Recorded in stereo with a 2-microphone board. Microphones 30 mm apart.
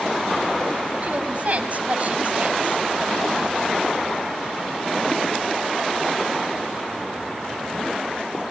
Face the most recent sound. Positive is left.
turn(degrees=-50)  # may be behind; listen again after turning